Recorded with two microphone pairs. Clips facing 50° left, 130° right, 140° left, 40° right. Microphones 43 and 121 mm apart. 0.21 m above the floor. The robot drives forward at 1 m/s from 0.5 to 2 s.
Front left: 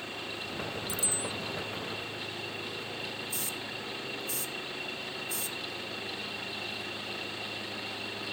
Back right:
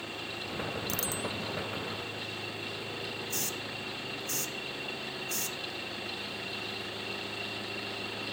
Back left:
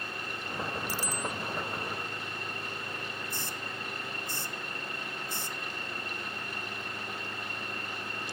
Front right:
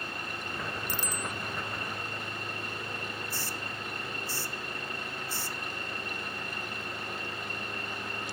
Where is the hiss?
155° right.